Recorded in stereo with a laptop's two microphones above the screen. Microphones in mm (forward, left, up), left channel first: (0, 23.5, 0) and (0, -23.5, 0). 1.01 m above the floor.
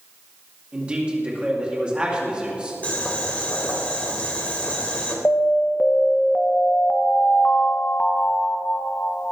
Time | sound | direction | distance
0.7 | a man speaking | 20° right (ahead or behind) | 2.5 m
2.8 | boiling | 30° left (ahead or behind) | 3 m
5.2 | an alarm | 40° left (ahead or behind) | 0.7 m